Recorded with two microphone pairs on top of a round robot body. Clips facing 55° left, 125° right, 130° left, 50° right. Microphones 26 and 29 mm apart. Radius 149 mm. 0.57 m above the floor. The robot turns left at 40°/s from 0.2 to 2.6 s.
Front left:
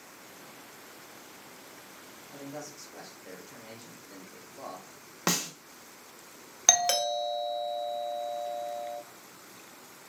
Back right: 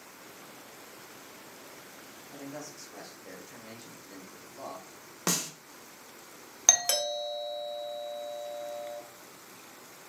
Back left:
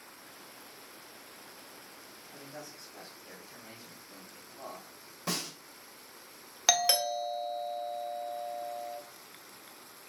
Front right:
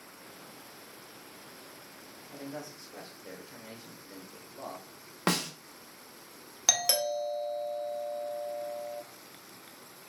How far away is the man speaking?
About 2.5 m.